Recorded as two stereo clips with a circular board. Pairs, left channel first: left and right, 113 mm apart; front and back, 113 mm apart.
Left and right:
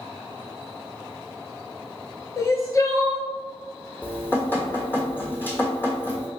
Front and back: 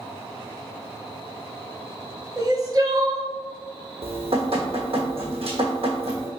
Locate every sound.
2.4 s crying: 140° left, 0.7 m
4.0 s dripping: 160° left, 1.2 m